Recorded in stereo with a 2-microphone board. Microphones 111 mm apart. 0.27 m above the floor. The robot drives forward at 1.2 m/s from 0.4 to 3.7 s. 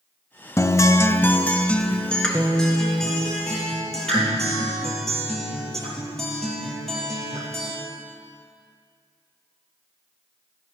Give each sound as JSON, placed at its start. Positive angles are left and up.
{"t": 0.6, "sound": "a guitar", "side_deg": 25, "distance_m": 0.5}